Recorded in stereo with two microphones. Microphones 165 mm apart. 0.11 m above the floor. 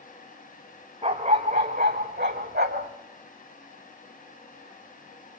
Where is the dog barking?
40° right (ahead or behind), 2.5 m; by 2.9 s 80° right, 2 m.